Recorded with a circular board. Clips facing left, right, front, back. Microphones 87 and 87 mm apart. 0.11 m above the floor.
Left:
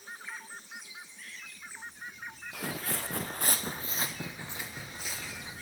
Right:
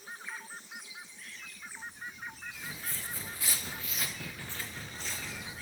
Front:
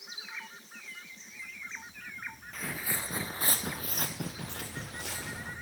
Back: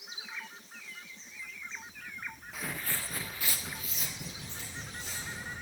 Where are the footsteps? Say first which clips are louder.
Left 7 dB, front 1 dB; 95° left, 0.7 m; by 5.5 s 5° left, 1.7 m.